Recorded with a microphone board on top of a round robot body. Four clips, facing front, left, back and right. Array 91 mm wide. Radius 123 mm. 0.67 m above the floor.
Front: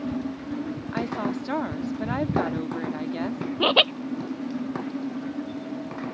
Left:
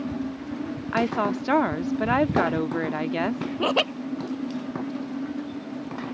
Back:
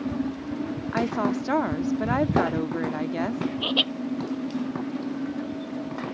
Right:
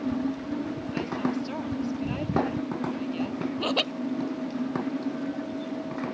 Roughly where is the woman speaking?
Left.